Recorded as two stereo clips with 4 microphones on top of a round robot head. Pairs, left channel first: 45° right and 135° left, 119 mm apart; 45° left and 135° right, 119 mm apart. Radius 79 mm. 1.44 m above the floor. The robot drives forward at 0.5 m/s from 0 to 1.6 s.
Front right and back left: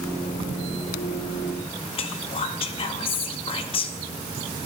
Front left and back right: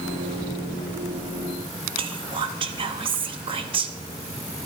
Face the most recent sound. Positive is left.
turn(degrees=-90)